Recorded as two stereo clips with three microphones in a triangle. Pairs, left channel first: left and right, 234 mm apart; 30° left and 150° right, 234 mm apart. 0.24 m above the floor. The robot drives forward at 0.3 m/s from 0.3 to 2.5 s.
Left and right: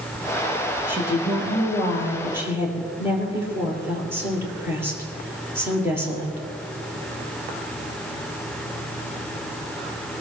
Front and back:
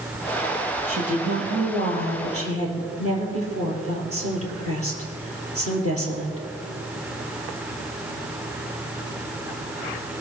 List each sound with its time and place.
0.9 s a woman speaking: 170° right, 4.5 m